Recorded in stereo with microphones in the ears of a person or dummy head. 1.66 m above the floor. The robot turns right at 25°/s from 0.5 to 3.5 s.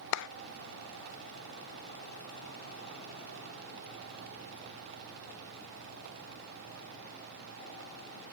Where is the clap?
70° left (ahead or behind), 0.6 m.